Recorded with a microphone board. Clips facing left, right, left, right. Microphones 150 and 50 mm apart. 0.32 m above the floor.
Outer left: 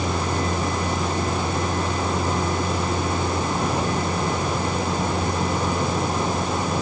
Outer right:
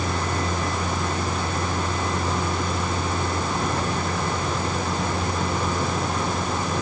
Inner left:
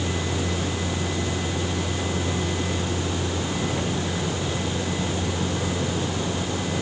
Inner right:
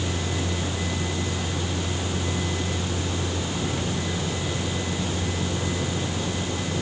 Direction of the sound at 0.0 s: 10° left (ahead or behind).